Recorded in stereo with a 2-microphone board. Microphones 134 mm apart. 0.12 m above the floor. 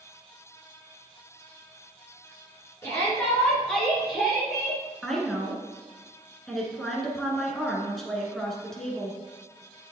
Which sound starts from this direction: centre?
A woman speaking, at 5.0 s.